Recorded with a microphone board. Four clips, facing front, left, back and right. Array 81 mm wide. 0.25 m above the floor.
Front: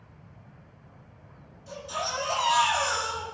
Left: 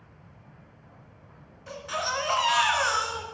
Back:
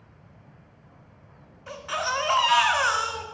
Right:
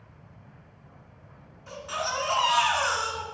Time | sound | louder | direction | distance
1.7 | a baby crying | left 1 dB, back 4 dB | 170° left | 0.9 m